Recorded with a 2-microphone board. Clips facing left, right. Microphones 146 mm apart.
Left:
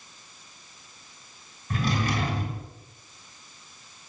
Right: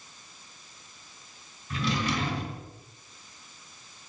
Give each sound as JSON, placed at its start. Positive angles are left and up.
{"t": 1.7, "sound": "a drawer", "side_deg": 50, "distance_m": 3.0}